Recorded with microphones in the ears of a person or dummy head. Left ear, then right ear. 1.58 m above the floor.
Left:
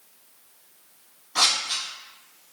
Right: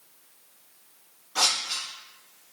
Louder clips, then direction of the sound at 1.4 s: Left 3 dB; 20° left (ahead or behind).